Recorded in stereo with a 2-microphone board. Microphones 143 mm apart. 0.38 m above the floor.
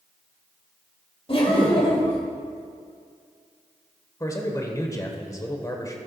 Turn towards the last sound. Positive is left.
turn(degrees=25)  # may be behind; listen again after turning